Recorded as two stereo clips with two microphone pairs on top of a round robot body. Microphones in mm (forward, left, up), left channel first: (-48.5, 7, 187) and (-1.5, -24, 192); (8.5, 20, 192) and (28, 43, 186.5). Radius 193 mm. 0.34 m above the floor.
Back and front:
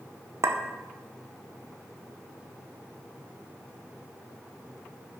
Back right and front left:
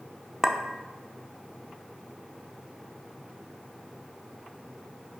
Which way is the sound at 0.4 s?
15° right.